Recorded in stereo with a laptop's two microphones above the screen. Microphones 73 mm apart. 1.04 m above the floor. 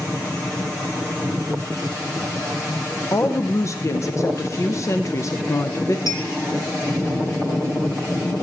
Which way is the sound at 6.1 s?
60° left (ahead or behind).